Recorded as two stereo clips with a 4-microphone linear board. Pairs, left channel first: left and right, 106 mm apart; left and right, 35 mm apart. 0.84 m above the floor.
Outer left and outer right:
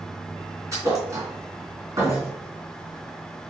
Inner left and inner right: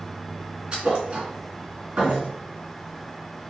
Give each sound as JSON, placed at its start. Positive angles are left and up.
{"t": 0.7, "sound": "a thud", "side_deg": -30, "distance_m": 3.0}